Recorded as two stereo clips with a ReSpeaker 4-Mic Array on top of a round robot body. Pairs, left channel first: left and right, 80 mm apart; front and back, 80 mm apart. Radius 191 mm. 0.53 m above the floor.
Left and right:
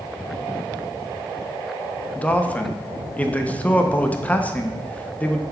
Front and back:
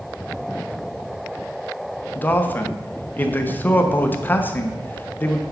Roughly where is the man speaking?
Ahead left.